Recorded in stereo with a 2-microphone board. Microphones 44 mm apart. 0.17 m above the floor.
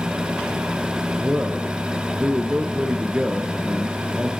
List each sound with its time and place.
1.2 s a man speaking: 30° right (ahead or behind), 2 m